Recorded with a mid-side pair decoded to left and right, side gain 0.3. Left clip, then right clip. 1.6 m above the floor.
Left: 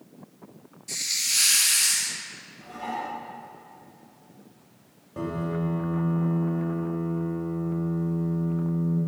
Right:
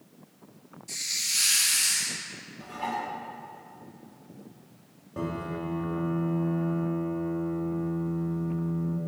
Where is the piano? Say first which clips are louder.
Left 3 dB; 10° right, 3.5 m.